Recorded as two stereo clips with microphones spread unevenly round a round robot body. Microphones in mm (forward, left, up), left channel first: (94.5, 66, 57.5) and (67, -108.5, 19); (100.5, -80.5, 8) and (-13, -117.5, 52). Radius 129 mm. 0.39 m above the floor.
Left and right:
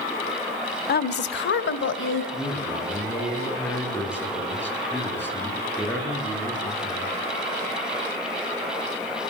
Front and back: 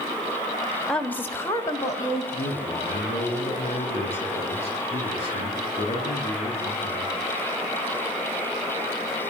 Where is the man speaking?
Straight ahead, 7.5 m.